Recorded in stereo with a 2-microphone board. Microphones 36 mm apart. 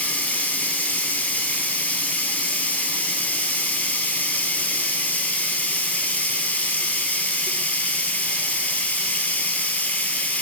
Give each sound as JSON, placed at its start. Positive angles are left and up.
{"t": 0.0, "sound": "running water", "side_deg": 50, "distance_m": 0.8}